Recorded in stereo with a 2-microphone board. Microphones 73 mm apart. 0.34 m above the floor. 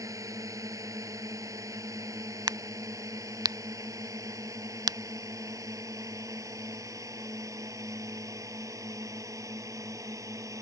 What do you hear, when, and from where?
0.0 s a drone: 55° right (ahead or behind)
2.5 s a crack: 80° right